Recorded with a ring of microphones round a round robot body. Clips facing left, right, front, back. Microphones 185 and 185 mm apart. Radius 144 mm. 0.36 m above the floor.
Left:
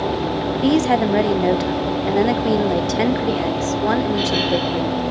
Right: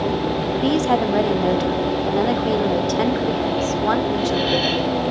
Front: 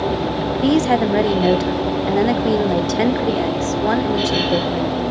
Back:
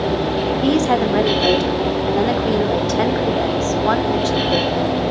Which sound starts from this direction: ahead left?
A woman speaking, at 0.6 s.